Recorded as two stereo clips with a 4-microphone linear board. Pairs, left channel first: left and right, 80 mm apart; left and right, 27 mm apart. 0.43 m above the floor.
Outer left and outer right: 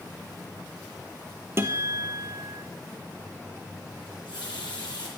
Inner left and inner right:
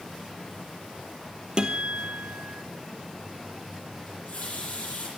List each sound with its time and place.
1.6 s a guitar: 35° right (ahead or behind), 2 m
4.1 s a running tap: 80° left, 9.5 m